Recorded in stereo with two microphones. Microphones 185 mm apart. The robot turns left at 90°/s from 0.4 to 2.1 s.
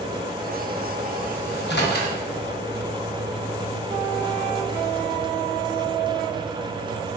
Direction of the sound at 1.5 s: 60° left (ahead or behind).